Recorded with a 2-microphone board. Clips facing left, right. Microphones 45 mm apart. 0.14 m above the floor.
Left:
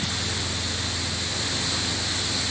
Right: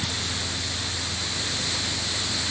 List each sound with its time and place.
Only background noise.